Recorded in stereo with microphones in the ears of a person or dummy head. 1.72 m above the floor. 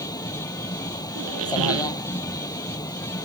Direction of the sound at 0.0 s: 20° left (ahead or behind).